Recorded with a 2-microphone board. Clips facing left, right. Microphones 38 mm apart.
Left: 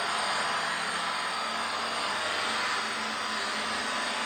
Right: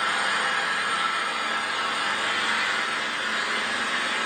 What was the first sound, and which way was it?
An engine running, 80° right.